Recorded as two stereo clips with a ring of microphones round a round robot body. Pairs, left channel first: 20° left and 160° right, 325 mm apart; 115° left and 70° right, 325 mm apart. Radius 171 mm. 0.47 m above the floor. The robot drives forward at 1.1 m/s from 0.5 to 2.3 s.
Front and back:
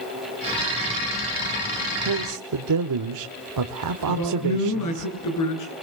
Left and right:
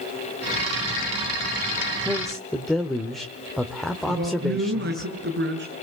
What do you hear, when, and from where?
2.0 s a man speaking: 150° right, 1.2 m; by 5.1 s 160° right, 1.4 m
4.1 s a man speaking: 10° right, 9 m